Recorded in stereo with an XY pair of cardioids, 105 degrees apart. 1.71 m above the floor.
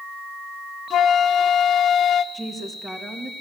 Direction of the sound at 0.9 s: 60° left.